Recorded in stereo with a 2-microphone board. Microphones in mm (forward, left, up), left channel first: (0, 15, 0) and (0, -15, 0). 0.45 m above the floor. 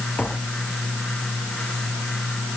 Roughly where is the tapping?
Left.